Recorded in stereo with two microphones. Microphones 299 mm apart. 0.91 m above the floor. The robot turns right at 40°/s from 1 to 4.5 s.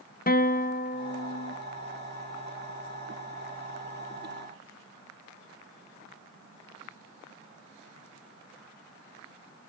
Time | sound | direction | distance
0.3 | a guitar | 30° left (ahead or behind) | 0.5 m